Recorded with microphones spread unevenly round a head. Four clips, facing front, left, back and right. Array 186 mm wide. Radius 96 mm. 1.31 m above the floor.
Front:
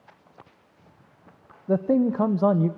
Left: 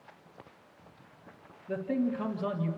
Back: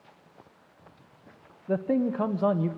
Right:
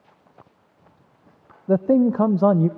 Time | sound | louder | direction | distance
1.7 | a man speaking | right 13 dB, front 5 dB | 80° right | 0.7 m